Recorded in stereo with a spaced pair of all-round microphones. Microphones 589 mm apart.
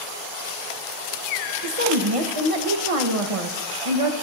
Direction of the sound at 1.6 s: 65° right (ahead or behind).